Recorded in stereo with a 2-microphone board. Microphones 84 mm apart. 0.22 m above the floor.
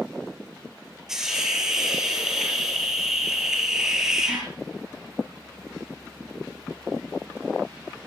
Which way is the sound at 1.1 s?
5° right (ahead or behind).